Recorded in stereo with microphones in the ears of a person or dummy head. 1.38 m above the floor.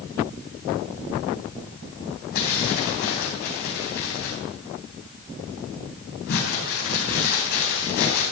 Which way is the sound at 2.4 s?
50° left (ahead or behind).